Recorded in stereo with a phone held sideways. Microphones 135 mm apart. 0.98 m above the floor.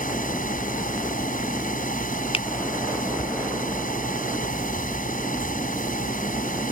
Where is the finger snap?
45° left (ahead or behind).